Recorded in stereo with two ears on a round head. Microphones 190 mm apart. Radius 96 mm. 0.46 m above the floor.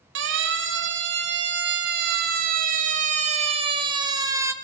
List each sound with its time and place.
0.1 s a siren: 60° right (ahead or behind), 3.5 m; by 4.5 s 15° right (ahead or behind), 2.5 m